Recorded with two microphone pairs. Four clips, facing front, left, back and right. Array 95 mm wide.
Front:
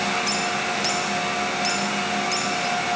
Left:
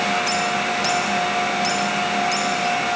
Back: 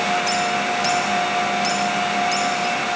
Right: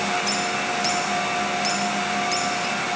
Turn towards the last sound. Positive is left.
No sound to turn to.